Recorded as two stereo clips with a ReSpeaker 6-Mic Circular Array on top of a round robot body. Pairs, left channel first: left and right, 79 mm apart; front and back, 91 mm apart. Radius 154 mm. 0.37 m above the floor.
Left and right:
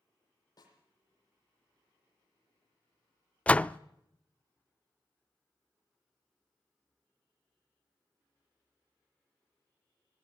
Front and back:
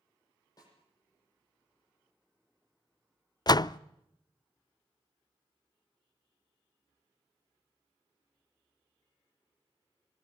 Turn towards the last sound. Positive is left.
turn(degrees=20)